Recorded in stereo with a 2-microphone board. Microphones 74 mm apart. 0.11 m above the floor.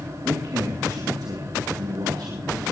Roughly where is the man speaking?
Right.